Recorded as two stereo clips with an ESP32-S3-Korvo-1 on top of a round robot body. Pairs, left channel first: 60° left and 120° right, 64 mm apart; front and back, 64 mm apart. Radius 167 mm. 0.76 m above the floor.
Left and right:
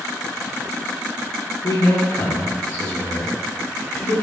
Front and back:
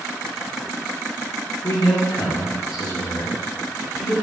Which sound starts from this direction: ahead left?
A man speaking, at 1.6 s.